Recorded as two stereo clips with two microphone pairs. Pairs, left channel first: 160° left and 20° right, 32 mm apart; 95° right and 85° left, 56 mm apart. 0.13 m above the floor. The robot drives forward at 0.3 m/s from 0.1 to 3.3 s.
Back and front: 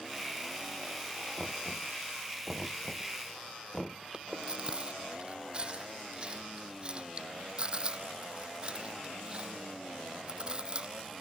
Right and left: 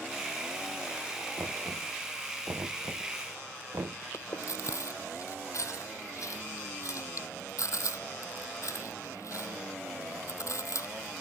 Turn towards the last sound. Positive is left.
turn(degrees=-80)